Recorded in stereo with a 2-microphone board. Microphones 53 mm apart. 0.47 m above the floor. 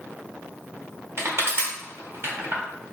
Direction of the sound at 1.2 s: 50° right (ahead or behind).